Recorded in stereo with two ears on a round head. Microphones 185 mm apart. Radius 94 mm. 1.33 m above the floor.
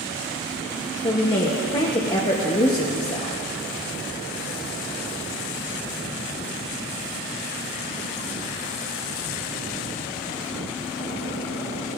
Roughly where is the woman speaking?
Left.